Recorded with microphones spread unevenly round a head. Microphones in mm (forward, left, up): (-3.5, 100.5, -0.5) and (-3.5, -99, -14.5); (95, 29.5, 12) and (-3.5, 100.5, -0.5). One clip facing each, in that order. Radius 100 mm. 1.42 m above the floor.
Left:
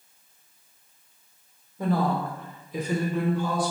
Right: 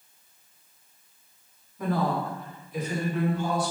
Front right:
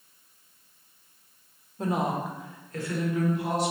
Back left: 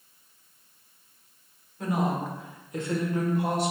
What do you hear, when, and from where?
1.8 s a woman speaking: 25° left, 1.2 m; by 3.7 s 110° left, 1.3 m